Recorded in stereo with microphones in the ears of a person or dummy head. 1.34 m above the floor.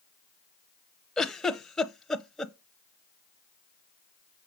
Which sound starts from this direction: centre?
A giggle, at 1.2 s.